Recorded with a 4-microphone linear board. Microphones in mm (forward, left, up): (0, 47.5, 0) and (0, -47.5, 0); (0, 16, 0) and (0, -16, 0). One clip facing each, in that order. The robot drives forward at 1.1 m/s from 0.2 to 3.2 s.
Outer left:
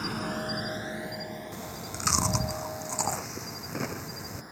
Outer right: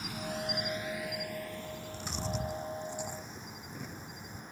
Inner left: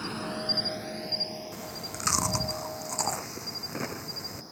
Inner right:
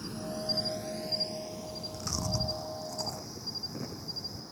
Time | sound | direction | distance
0.0 | an insect | 65° left (ahead or behind) | ?
1.5 | chewing | 80° left | ?